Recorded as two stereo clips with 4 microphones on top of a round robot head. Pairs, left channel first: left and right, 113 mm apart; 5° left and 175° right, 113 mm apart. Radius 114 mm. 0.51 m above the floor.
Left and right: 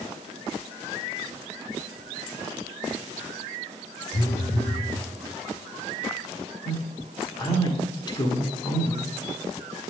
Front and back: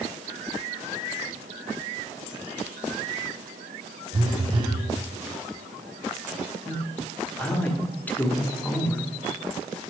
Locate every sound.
4.1 s a phone buzzing: 130° left, 0.8 m
6.7 s a man speaking: 70° left, 1.3 m